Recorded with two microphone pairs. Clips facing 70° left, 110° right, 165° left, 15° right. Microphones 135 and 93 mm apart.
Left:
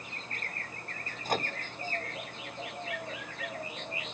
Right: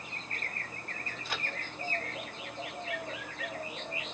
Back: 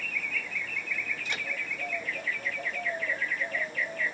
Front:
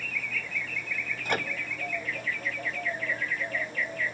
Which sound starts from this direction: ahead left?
A microwave, at 1.2 s.